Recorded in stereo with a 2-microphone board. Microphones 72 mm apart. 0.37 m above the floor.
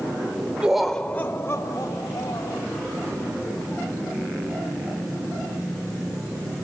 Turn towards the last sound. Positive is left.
turn(degrees=60)  # may be behind; listen again after turning